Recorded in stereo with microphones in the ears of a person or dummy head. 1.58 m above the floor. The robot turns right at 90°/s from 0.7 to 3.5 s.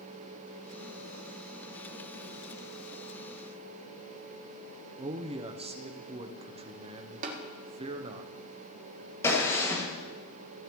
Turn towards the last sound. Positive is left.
turn(degrees=20)  # may be behind; listen again after turning